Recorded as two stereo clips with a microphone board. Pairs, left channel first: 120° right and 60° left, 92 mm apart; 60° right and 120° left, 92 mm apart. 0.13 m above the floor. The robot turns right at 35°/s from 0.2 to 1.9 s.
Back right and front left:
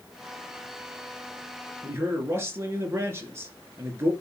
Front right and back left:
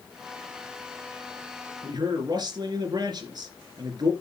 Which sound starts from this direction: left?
A man speaking, at 1.8 s.